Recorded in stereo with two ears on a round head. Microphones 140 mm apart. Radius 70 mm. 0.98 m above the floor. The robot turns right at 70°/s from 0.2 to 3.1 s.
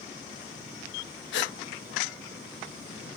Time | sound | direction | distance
1.3 | a gasp | 80° left | 0.5 m